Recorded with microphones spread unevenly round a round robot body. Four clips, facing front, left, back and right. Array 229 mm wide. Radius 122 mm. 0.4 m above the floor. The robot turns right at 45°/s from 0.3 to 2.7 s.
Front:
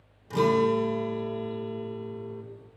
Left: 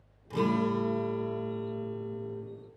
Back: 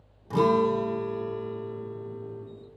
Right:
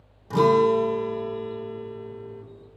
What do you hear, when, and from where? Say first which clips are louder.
0.3 s a guitar: right 10 dB, even; 100° right, 1.2 m; by 2.4 s 5° right, 1.2 m